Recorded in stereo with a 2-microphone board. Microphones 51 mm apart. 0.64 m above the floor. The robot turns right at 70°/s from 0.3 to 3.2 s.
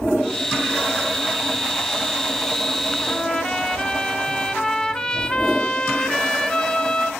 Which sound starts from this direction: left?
A trumpet, at 3.0 s.